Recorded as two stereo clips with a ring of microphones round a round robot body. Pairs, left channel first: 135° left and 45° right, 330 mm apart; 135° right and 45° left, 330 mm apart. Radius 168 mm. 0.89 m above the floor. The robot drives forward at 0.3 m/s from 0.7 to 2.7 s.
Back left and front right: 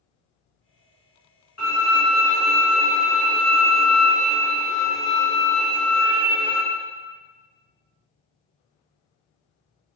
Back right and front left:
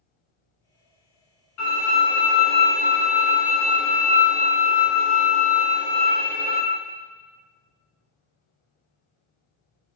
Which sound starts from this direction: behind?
A violin, at 1.6 s.